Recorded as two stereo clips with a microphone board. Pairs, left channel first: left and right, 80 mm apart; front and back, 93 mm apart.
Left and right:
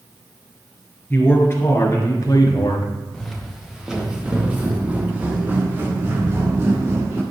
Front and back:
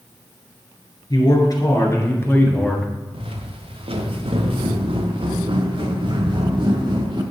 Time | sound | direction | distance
1.1 | a man speaking | 30° left | 3 m
3.1 | footsteps | straight behind | 2 m